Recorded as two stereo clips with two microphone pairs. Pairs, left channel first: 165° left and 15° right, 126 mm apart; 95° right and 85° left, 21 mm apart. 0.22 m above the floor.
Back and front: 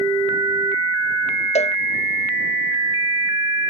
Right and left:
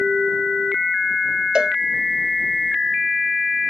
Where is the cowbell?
135° left.